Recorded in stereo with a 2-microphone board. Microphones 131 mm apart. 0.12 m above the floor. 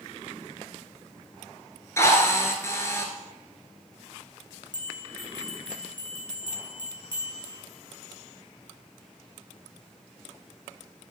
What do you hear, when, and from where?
2.0 s a drill: 20° left (ahead or behind), 1.9 m
4.7 s a bell: 35° left (ahead or behind), 2 m